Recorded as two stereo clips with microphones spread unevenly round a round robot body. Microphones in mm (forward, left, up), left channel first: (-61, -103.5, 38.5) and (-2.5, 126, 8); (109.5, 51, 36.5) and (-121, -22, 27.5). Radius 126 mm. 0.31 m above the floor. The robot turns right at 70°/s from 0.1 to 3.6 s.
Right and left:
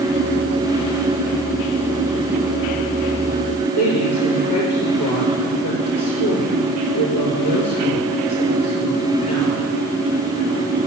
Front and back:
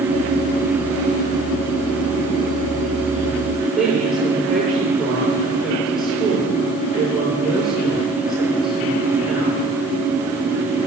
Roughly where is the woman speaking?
Right.